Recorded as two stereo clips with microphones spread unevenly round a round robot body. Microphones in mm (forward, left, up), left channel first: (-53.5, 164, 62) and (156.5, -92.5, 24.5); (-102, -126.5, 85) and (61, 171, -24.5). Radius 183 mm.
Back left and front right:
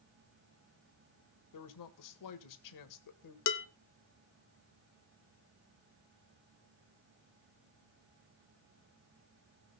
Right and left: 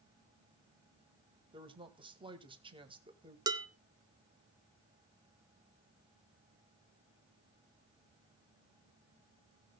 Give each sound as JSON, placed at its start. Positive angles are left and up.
{"t": 1.5, "sound": "a woman speaking", "azimuth_deg": 120, "distance_m": 1.4}
{"t": 3.5, "sound": "dishes clattering", "azimuth_deg": 120, "distance_m": 1.0}